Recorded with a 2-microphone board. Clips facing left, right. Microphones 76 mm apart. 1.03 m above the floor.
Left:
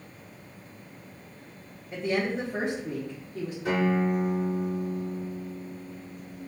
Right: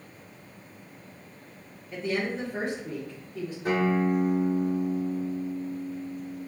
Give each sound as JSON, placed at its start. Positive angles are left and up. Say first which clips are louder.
{"t": 1.9, "sound": "a woman speaking", "louder": "left 2 dB", "side_deg": 20, "distance_m": 0.9}
{"t": 3.6, "sound": "a guitar", "louder": "right 1 dB", "side_deg": -40, "distance_m": 2.0}